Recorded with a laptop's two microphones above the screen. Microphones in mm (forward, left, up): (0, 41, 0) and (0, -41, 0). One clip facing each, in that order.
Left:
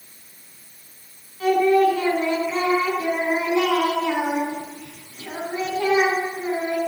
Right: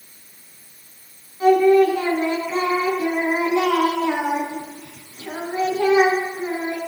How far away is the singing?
About 4.5 m.